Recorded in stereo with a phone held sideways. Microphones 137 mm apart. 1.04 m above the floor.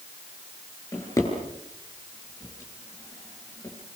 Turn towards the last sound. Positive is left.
turn(degrees=25)  # may be behind; listen again after turning